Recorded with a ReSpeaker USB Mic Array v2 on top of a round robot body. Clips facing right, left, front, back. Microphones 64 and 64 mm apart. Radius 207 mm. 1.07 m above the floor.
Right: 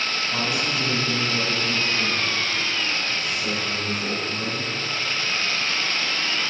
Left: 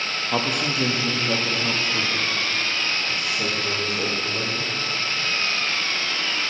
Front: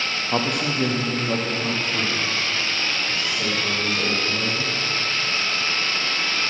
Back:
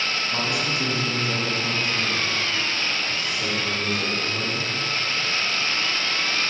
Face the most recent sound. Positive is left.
turn(degrees=80)